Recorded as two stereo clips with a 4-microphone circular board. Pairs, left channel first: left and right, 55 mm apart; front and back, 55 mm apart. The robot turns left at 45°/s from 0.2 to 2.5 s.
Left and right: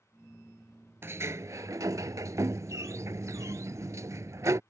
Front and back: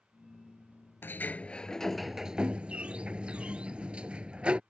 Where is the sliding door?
45° right; by 4.6 s 115° right.